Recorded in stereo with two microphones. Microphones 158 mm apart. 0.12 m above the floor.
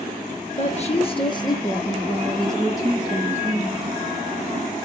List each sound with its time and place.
0.6 s a woman speaking: 50° left (ahead or behind), 2.0 m; by 3.9 s 15° right (ahead or behind), 3.5 m